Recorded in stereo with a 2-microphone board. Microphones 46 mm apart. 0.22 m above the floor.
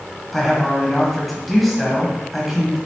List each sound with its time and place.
0.3 s a woman speaking: centre (ahead or behind), 1.0 m